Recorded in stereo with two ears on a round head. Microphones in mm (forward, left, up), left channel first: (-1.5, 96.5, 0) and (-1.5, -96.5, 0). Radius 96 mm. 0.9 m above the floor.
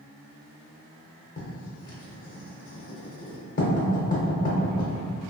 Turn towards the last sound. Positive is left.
turn(degrees=40)  # may be behind; listen again after turning